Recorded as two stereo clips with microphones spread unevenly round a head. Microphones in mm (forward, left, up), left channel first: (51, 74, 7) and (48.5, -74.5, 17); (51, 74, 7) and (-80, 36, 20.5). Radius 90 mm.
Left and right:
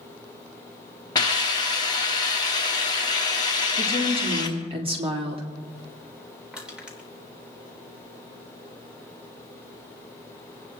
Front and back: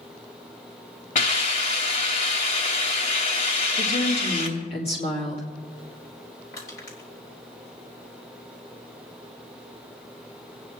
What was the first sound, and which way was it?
A hiss, 30° left.